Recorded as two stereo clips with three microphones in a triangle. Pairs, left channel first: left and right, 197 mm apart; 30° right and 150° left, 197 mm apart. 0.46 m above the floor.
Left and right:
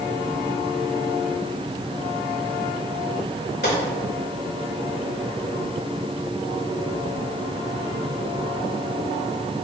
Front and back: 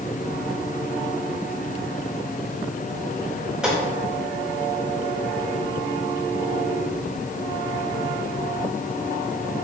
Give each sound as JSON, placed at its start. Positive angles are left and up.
{"t": 3.6, "sound": "a gunshot", "azimuth_deg": 65, "distance_m": 3.0}